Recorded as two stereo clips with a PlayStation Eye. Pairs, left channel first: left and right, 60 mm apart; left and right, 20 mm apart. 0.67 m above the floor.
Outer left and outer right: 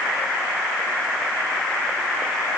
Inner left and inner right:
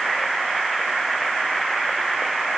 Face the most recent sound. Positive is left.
No sound to turn to.